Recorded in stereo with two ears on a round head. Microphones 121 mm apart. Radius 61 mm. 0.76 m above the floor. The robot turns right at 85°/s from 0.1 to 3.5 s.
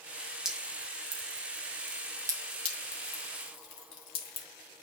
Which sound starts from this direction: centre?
Dripping, at 0.5 s.